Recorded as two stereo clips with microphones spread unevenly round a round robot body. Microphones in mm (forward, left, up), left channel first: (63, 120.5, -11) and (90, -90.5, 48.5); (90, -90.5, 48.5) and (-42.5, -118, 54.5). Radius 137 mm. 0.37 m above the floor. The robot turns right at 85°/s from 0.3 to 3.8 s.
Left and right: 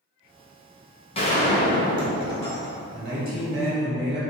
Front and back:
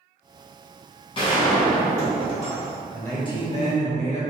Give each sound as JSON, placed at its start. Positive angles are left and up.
{"t": 1.1, "sound": "a gunshot", "azimuth_deg": 55, "distance_m": 0.9}
{"t": 2.9, "sound": "a man speaking", "azimuth_deg": -75, "distance_m": 1.1}